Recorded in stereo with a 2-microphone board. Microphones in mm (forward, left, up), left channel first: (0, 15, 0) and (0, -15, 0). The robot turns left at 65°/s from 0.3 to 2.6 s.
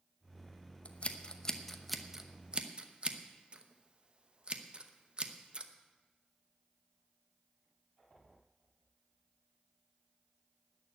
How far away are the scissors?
About 0.9 m.